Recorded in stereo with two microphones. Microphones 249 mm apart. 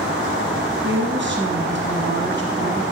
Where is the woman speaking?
50° right (ahead or behind), 2.5 m.